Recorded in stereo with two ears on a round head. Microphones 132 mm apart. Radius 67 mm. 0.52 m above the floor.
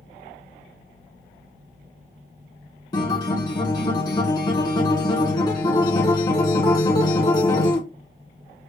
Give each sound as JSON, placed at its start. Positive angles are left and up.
{"t": 2.9, "sound": "a guitar", "side_deg": 30, "distance_m": 1.6}